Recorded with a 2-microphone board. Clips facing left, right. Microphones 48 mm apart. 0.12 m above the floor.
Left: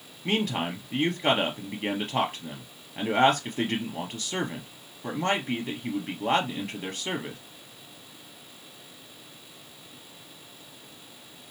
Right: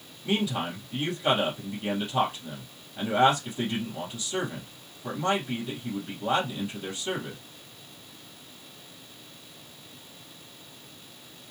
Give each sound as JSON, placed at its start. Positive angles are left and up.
{"t": 0.2, "sound": "a man speaking", "side_deg": 55, "distance_m": 2.0}